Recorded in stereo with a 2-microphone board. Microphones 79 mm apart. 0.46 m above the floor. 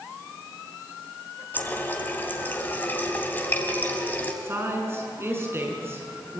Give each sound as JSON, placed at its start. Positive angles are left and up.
{"t": 1.5, "sound": "a running tap", "side_deg": 20, "distance_m": 2.0}
{"t": 4.4, "sound": "a woman speaking", "side_deg": -35, "distance_m": 5.5}